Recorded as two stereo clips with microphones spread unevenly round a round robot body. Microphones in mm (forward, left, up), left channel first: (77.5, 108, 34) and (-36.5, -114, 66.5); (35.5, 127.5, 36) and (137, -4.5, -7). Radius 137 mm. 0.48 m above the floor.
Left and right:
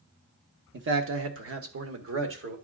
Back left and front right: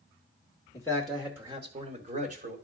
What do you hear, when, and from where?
0.7 s a man speaking: 150° right, 1.1 m; by 2.5 s 75° right, 1.8 m